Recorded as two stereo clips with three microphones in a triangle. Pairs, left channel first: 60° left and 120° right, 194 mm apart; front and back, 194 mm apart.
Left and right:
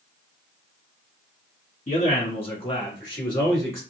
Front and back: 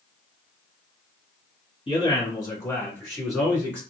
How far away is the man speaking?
About 1.6 m.